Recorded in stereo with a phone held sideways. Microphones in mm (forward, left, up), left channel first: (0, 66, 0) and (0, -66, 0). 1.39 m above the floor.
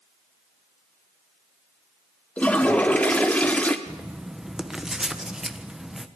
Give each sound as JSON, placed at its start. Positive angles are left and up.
{"t": 2.4, "sound": "a toilet flushing", "side_deg": 10, "distance_m": 1.3}
{"t": 3.9, "sound": "writing", "side_deg": -5, "distance_m": 1.1}